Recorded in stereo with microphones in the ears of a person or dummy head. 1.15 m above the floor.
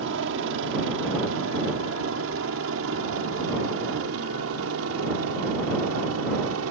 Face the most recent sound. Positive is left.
turn(degrees=-70)  # may be behind; listen again after turning